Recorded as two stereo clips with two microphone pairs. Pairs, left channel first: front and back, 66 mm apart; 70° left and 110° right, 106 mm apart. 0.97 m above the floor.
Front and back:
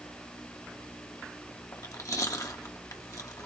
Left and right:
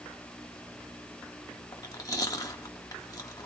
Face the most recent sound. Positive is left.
turn(degrees=20)